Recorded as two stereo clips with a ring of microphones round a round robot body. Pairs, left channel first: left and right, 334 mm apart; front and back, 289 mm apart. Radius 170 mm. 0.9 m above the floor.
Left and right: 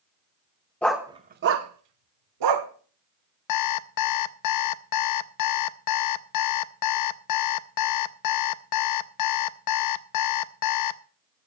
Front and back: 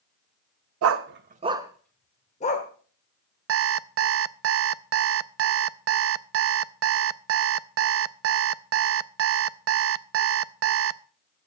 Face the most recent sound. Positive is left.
turn(degrees=130)